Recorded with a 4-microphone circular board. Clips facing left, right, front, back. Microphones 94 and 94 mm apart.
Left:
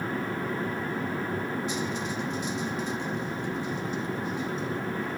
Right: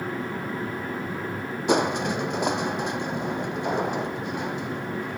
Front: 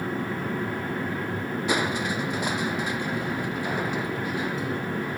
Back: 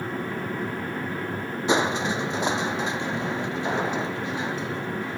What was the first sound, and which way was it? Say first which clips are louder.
Crushing: right 8 dB, back 4 dB; 110° right.